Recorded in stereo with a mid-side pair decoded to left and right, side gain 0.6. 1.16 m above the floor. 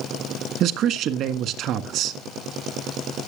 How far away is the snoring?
No snoring in this recording.